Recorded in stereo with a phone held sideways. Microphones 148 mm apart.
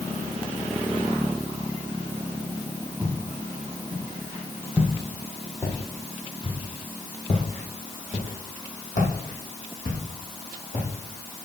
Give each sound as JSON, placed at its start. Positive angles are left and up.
{"t": 3.0, "sound": "footsteps", "side_deg": -10, "distance_m": 3.0}